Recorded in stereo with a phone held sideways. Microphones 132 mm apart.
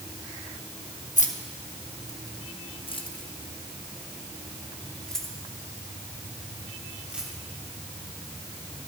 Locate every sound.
1.2 s keys jangling: 75° left (ahead or behind), 1.2 m; by 7.3 s 10° right (ahead or behind), 3 m